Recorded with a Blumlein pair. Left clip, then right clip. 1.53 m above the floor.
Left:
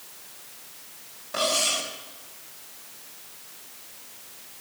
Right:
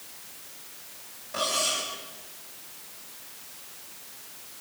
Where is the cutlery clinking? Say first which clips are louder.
Left 3 dB; 15° left, 4.5 m.